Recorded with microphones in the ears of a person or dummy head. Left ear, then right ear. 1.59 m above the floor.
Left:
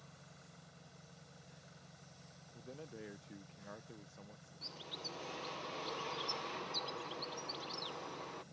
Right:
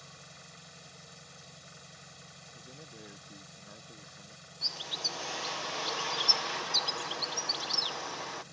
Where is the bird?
35° right (ahead or behind).